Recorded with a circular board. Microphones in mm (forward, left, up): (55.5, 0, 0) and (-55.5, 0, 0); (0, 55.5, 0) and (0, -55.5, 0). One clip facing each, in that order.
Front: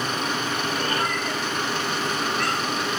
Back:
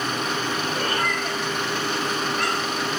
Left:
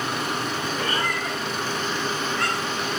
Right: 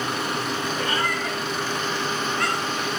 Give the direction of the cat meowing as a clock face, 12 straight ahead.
6 o'clock.